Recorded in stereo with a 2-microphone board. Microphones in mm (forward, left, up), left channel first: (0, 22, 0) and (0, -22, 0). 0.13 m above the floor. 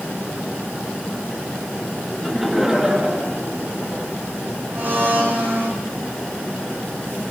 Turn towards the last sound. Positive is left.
turn(degrees=-50)  # may be behind; listen again after turning